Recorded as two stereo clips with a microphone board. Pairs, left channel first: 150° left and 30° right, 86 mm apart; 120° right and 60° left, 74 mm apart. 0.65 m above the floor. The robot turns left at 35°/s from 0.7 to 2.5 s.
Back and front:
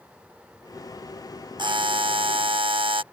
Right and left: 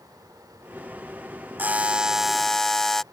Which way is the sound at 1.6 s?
5° right.